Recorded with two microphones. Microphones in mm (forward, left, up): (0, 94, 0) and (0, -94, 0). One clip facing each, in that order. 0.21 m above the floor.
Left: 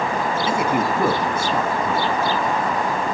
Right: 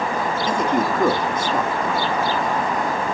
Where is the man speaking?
10° left (ahead or behind), 1.5 m.